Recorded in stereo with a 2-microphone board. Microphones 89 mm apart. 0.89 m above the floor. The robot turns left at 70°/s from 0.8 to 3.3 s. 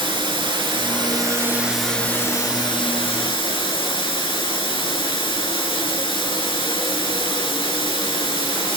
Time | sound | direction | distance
0.0 | running water | 110° right | 4 m